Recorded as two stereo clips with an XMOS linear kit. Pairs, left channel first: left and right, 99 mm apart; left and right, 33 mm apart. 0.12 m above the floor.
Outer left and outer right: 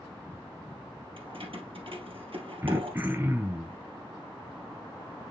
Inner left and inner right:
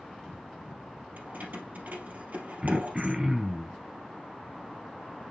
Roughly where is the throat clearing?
Right.